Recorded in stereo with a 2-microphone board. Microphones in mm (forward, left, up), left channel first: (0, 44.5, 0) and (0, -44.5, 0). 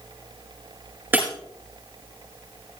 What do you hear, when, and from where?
1.1 s breaking glass: 20° right (ahead or behind), 5.5 m